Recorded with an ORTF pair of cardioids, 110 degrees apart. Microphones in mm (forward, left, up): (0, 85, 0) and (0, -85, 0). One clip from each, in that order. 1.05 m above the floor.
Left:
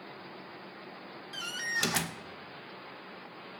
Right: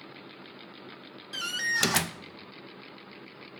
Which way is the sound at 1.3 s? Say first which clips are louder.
Right 5 dB; 25° right.